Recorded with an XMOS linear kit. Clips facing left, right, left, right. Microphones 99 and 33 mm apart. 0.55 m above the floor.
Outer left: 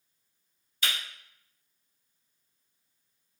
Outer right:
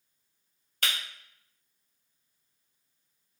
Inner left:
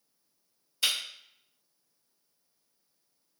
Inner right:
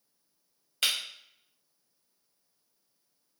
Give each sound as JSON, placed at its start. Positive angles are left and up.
{"t": 0.8, "sound": "breaking glass", "side_deg": -65, "distance_m": 1.1}